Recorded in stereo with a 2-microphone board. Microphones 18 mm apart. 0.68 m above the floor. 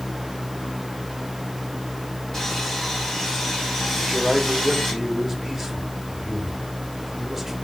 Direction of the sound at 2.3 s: 25° left (ahead or behind).